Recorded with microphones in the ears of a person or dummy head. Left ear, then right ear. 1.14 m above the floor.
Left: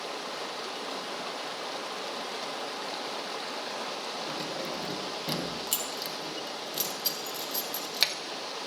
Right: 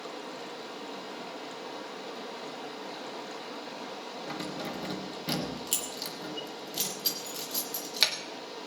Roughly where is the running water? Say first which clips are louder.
Left 4 dB; left.